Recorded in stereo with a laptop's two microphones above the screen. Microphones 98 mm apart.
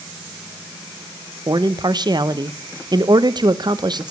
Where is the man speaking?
45° right (ahead or behind), 0.8 m.